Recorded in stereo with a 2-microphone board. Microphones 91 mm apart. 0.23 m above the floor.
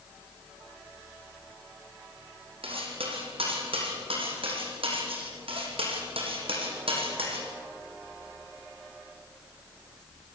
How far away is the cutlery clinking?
About 6 m.